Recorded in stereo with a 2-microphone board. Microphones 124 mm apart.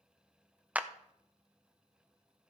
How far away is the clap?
About 0.6 m.